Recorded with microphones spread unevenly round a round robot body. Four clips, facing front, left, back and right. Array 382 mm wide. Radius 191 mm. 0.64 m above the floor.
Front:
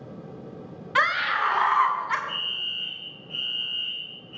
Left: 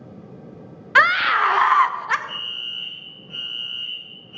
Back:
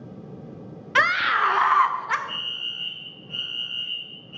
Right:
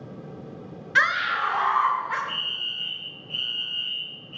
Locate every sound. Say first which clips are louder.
0.9 s a scream: left 6 dB, back 3 dB; 145° left, 0.9 m; by 2.2 s 105° left, 1.7 m
2.3 s a fire alarm: right 1 dB, front 1 dB; 155° left, 4.5 m